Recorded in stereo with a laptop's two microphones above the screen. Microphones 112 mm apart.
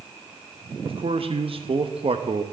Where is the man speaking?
55° right (ahead or behind), 0.7 m.